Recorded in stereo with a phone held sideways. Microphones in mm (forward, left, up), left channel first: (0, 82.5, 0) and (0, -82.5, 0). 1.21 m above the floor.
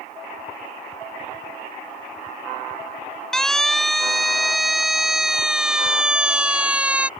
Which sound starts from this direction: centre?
A siren, at 3.3 s.